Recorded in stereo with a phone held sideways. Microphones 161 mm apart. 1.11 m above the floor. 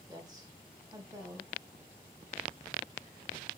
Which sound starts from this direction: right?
A woman speaking, at 0.1 s.